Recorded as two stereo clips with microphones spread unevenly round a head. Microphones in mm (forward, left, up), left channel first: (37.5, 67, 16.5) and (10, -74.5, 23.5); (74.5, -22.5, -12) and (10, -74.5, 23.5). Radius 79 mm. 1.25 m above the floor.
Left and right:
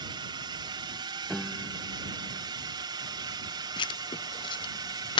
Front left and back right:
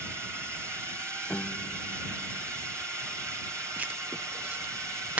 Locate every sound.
0.0 s a drone: 70° right; by 5.2 s 80° right
1.3 s a piano: 10° right
3.8 s writing: 125° left